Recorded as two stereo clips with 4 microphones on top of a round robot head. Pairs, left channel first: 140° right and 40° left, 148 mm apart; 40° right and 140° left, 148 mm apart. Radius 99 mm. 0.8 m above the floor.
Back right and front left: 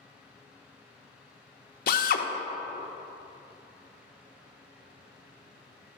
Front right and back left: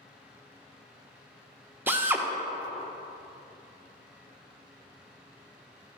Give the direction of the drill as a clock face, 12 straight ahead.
5 o'clock.